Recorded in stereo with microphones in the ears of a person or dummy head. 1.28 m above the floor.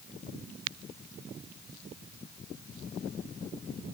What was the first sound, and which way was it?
Only background noise.